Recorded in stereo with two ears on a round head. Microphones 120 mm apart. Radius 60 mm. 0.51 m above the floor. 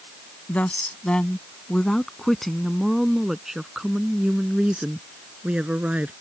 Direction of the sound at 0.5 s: 10° left (ahead or behind).